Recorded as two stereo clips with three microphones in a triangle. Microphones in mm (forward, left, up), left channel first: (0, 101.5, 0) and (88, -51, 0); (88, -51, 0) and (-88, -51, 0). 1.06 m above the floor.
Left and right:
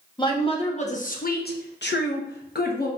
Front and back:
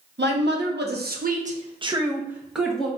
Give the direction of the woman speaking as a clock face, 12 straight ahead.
6 o'clock.